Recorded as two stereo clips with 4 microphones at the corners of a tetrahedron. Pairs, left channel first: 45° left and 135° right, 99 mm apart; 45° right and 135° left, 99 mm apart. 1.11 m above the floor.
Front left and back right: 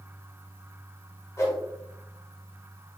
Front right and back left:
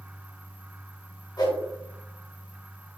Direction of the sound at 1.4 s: 10° right.